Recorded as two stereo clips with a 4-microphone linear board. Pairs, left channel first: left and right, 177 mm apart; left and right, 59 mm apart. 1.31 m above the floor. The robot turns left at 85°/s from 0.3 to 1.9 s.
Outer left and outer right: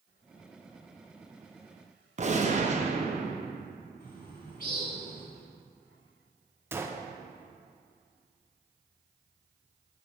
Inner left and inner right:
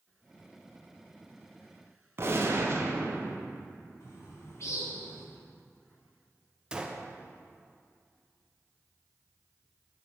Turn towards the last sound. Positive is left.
turn(degrees=-15)  # may be behind; listen again after turning